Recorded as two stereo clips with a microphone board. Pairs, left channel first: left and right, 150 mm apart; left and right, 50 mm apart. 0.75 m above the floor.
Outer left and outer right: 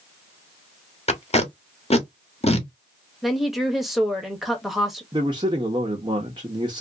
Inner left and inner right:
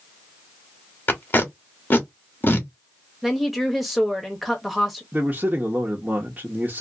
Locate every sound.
1.1 s tape being pulled: 45° left (ahead or behind), 1.0 m
3.2 s a woman speaking: centre (ahead or behind), 0.9 m
5.1 s a man speaking: 30° right (ahead or behind), 0.9 m